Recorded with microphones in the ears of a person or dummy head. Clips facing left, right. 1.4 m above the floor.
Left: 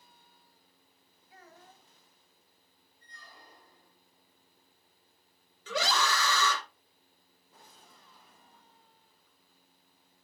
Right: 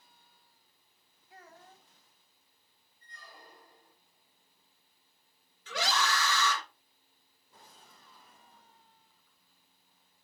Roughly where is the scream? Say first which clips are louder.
Left 2 dB; left.